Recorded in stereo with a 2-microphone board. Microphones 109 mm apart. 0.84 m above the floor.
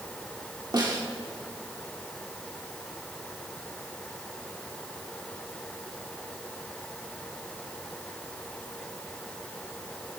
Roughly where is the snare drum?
Right.